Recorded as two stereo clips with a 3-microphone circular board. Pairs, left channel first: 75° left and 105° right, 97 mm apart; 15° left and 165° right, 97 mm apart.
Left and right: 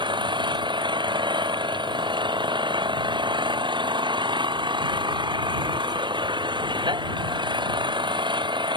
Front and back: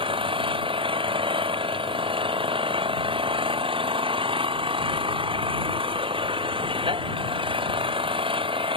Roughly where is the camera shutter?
No camera shutter in this recording.